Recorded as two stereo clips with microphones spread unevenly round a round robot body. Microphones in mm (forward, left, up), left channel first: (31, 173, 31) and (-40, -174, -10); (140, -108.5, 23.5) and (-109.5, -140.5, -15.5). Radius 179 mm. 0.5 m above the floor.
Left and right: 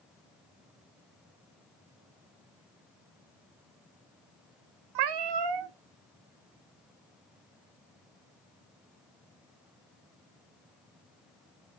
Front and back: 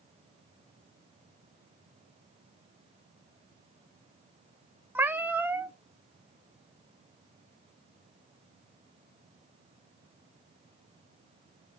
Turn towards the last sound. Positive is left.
turn(degrees=-95)